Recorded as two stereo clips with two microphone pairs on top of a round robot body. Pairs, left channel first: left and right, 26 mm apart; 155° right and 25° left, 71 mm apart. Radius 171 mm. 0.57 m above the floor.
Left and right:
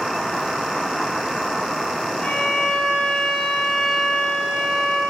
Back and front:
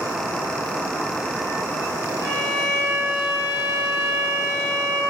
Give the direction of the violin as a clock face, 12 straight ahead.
9 o'clock.